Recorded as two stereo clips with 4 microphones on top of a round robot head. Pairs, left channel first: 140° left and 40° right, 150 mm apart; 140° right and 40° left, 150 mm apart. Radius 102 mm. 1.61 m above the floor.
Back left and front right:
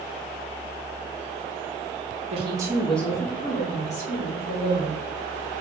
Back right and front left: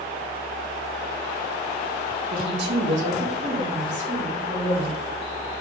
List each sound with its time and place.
2.3 s a woman speaking: 5° left, 0.6 m; by 5.0 s 100° left, 1.7 m